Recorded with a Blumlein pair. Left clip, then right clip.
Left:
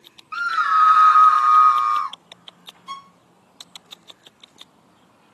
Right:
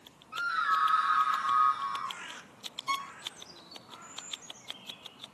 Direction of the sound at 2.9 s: 20° right.